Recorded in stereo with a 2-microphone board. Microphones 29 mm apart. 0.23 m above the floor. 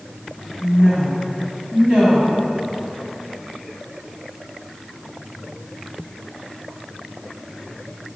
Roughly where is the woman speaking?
Right.